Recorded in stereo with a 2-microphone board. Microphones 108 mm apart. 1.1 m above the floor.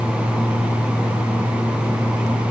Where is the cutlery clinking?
I don't hear cutlery clinking.